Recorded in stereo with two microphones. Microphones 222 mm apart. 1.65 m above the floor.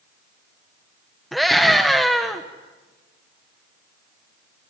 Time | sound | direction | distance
1.3 | a scream | centre (ahead or behind) | 1.4 m